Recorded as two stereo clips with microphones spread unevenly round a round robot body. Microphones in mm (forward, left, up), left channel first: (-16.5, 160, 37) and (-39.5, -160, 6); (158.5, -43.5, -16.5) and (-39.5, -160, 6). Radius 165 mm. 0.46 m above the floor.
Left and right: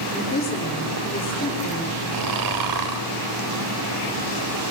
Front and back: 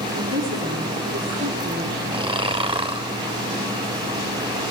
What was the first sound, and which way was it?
A woman speaking, 150° left.